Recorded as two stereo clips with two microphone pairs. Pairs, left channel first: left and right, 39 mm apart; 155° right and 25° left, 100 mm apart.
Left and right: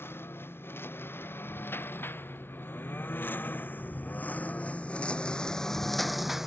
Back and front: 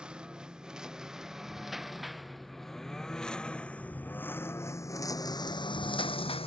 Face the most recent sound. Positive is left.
turn(degrees=-170)